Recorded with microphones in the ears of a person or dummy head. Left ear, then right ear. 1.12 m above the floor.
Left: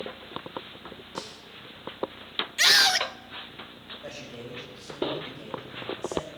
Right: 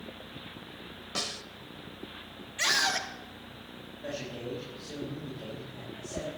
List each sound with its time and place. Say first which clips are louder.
1.1 s a snare drum: right 6 dB; 20° right (ahead or behind), 0.7 m
2.6 s a scream: left 7 dB; 50° left (ahead or behind), 0.9 m
4.0 s a man speaking: right 5 dB; 85° left, 6 m